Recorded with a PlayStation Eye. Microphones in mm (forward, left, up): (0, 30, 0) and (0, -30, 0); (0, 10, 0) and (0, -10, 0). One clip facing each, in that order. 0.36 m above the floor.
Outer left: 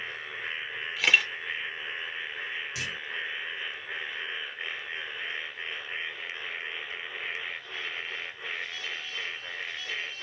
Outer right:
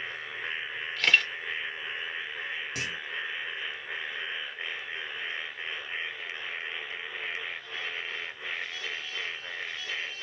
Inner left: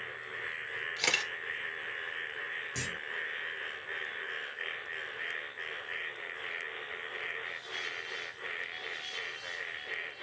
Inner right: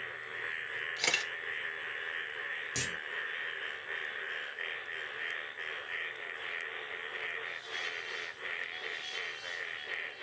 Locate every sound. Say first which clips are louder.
1.0 s a camera shutter: even, inner left 1 dB; 5° left (ahead or behind), 1.3 m
2.8 s a clunk: outer right 1 dB, inner right 3 dB; 50° right (ahead or behind), 1.5 m